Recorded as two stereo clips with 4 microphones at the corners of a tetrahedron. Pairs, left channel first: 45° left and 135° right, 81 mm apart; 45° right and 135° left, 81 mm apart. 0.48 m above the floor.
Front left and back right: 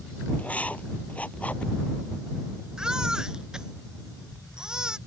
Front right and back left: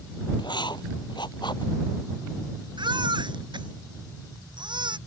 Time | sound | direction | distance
0.4 | writing | 30° right | ?
2.8 | a baby crying | 145° left | ?